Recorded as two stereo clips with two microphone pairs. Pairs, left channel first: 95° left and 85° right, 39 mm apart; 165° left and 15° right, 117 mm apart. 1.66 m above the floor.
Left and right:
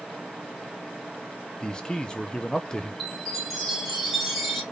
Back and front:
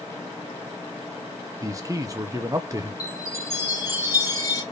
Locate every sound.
1.6 s a man speaking: 35° left, 0.8 m
3.0 s a chime: 175° right, 1.7 m